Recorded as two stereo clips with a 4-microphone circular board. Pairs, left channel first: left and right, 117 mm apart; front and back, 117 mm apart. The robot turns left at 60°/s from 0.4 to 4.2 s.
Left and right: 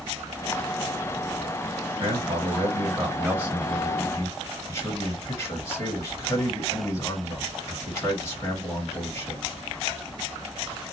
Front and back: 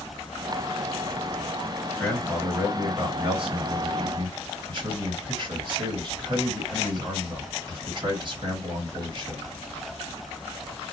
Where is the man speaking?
75° right, 2 m; by 9.4 s 150° left, 2 m.